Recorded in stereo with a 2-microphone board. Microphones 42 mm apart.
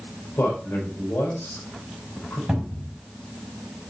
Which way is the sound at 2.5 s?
15° right (ahead or behind).